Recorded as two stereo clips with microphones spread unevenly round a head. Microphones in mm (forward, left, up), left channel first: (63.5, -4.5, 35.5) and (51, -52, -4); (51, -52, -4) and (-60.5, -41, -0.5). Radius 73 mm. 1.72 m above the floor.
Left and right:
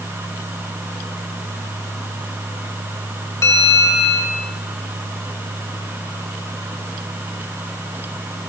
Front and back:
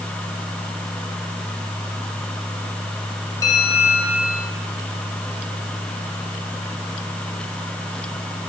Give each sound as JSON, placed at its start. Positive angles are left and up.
{"t": 3.4, "sound": "a bell", "azimuth_deg": 65, "distance_m": 4.5}